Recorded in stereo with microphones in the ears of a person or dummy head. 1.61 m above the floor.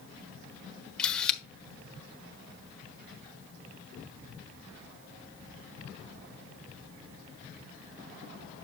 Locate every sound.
1.0 s a camera shutter: 5° left (ahead or behind), 1.0 m